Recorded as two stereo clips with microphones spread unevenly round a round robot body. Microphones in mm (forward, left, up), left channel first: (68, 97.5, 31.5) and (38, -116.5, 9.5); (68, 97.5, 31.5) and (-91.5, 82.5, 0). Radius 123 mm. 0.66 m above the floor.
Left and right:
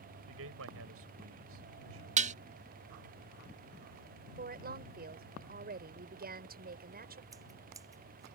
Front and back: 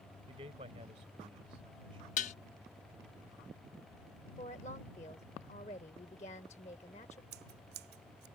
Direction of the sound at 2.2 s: 50° right.